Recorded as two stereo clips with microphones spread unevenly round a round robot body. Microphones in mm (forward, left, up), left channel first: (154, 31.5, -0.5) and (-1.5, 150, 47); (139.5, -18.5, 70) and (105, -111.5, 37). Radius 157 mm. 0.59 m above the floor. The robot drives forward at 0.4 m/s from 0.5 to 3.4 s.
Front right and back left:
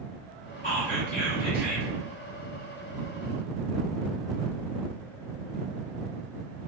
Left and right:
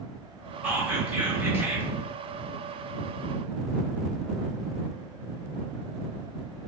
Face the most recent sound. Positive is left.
turn(degrees=-100)